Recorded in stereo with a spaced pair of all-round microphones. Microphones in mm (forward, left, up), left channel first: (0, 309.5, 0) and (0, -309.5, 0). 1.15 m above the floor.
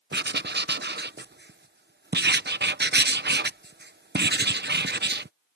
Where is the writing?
15° right (ahead or behind).